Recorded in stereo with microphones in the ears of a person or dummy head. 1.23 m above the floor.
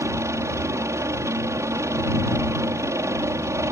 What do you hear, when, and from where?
0.0 s a helicopter: 15° right (ahead or behind)